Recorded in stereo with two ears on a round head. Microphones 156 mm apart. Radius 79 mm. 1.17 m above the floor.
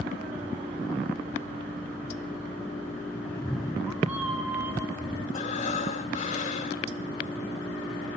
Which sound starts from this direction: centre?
A cat meowing, at 3.3 s.